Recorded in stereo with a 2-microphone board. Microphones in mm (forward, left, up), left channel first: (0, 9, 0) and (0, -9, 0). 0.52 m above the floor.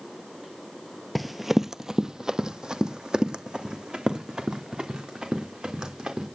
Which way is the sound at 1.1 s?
5° right (ahead or behind).